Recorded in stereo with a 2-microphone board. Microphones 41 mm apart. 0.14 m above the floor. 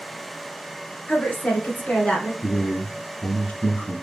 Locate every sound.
1.1 s a woman speaking: 40° left (ahead or behind), 1.3 m; by 2.3 s 30° left (ahead or behind), 1.3 m
2.4 s a man speaking: 40° left (ahead or behind), 1.4 m